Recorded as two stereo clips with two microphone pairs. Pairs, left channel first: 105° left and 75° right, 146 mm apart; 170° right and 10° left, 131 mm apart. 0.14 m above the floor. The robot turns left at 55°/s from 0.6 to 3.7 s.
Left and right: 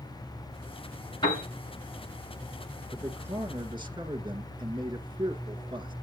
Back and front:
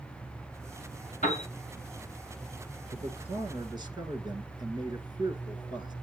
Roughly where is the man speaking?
Ahead.